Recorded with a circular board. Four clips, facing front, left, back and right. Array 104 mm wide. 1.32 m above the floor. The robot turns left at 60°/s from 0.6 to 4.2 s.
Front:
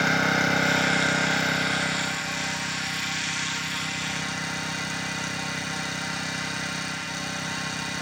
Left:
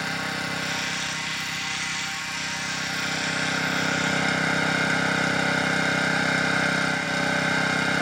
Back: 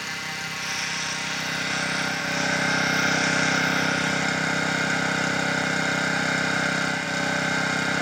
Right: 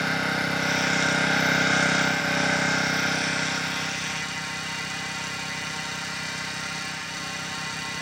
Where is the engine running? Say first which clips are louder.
Right 4 dB, front 11 dB; 15° right; by 8.0 s 130° left.